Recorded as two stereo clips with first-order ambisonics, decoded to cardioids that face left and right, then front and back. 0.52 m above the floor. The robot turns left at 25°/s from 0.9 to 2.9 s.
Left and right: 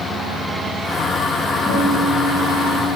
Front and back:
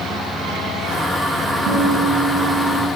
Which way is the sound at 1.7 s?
160° left.